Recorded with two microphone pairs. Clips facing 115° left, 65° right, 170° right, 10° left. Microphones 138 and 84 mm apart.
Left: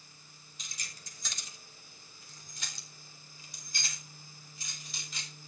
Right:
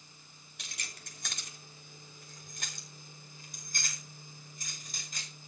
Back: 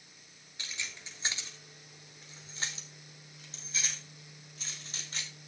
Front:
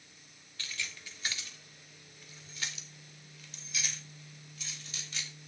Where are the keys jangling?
95° right, 2.5 m; by 5.5 s 115° right, 6 m.